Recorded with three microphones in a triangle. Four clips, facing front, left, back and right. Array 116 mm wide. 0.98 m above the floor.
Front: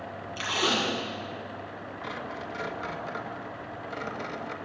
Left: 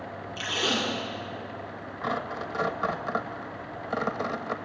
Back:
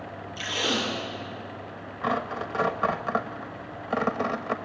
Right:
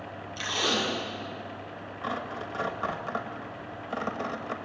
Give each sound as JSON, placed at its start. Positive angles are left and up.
{"t": 0.4, "sound": "tape being pulled", "azimuth_deg": -20, "distance_m": 5.5}
{"t": 2.0, "sound": "tearing paper", "azimuth_deg": 160, "distance_m": 1.1}